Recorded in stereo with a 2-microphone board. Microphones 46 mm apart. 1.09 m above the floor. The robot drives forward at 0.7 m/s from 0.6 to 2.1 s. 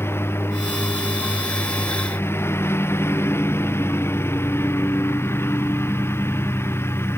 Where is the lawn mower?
70° left (ahead or behind).